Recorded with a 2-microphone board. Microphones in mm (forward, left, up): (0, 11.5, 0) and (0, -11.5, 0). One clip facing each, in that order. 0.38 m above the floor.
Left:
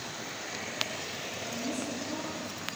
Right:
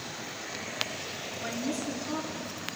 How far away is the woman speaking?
About 4 m.